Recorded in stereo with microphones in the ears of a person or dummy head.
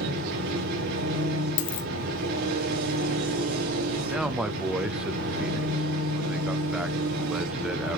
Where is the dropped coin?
40° left (ahead or behind), 1.3 m.